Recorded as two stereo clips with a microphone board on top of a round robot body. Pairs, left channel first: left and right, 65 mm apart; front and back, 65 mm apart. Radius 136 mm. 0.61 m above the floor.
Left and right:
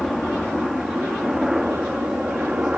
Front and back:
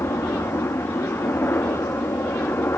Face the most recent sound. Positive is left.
turn(degrees=-25)